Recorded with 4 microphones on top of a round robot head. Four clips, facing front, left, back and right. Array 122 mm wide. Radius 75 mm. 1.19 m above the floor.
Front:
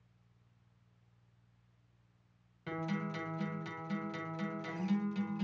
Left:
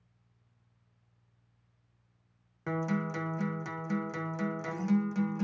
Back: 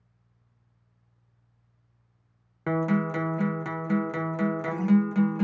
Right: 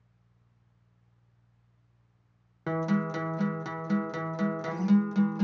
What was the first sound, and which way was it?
A guitar, 160° right.